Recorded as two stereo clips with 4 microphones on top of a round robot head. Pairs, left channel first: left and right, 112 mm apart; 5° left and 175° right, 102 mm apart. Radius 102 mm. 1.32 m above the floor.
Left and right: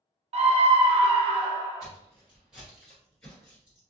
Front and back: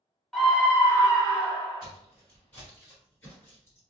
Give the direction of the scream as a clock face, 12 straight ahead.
3 o'clock.